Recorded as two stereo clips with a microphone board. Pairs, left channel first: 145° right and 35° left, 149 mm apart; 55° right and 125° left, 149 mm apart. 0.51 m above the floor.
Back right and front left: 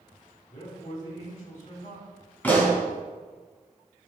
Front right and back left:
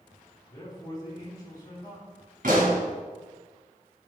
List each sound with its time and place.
0.5 s a man speaking: 120° right, 4 m
2.4 s a pop: 135° left, 3.5 m